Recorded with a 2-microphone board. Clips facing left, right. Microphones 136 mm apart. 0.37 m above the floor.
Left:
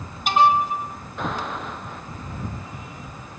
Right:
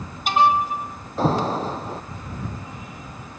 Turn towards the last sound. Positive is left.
turn(degrees=-35)  # may be behind; listen again after turning